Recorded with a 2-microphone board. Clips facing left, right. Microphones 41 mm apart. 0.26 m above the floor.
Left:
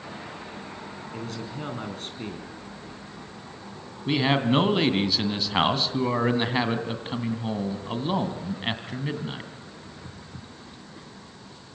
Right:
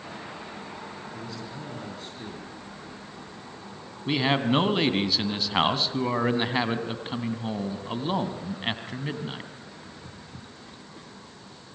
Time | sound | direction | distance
1.1 | a man speaking | 55° left (ahead or behind) | 3 m
4.1 | a man speaking | centre (ahead or behind) | 2.5 m